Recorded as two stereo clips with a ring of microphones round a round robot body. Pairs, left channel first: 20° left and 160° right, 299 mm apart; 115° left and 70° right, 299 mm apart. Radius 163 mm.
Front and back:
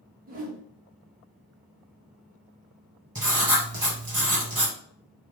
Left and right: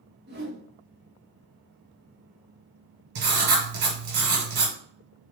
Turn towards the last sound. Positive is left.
turn(degrees=-80)